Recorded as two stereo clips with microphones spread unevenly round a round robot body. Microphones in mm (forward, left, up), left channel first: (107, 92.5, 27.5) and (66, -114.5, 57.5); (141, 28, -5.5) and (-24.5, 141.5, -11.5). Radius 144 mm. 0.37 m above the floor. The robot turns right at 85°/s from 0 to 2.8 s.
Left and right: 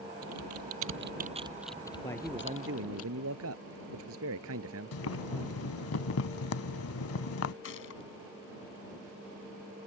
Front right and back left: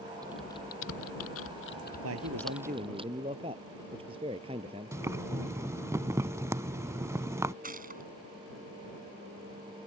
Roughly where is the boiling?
Left.